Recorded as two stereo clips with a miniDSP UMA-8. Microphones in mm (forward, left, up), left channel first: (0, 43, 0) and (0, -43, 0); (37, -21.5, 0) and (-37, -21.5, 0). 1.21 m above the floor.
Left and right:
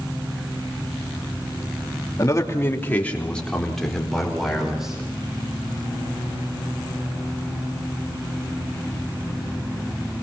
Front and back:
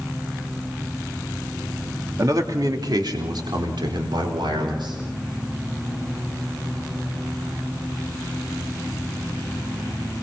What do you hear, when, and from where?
2.2 s a man speaking: 140° left, 2.5 m; by 5.0 s 175° right, 6 m